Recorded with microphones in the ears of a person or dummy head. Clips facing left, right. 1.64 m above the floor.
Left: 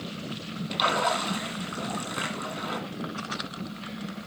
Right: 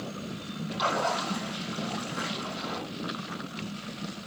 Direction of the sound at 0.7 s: 70° left (ahead or behind).